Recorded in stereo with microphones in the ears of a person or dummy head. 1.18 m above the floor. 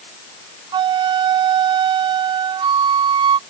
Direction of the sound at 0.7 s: 25° right (ahead or behind).